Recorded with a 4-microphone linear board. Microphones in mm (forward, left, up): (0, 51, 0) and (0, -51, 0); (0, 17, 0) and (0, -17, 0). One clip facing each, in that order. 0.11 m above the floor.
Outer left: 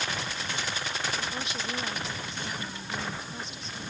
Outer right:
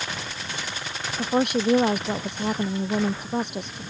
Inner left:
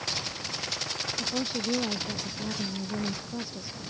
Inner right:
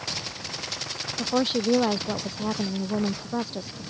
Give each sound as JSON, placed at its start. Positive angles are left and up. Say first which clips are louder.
{"t": 1.2, "sound": "a woman speaking", "louder": "outer right 13 dB, inner right 9 dB", "side_deg": -60}